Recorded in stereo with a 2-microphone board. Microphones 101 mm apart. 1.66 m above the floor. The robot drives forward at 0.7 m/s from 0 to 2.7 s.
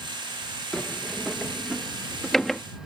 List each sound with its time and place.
0.7 s a sliding door: 5° left (ahead or behind)